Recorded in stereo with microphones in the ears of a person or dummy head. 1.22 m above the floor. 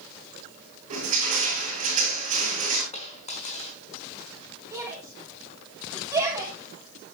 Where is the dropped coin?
35° left (ahead or behind), 5 m.